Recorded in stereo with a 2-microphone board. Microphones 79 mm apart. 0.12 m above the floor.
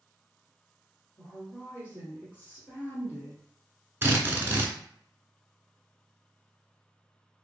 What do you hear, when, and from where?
1.2 s a woman speaking: 25° left (ahead or behind), 1.5 m; by 3.4 s 20° left (ahead or behind), 1.7 m
4.0 s a drill: 30° right (ahead or behind), 0.6 m